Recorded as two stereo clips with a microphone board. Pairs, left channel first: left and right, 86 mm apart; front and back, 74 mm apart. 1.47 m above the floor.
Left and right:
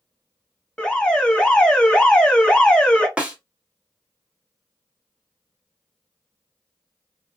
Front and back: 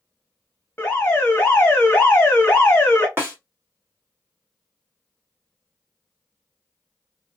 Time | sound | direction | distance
0.8 | an alarm | 20° left | 0.9 m
3.2 | a snare drum | 155° right | 1.1 m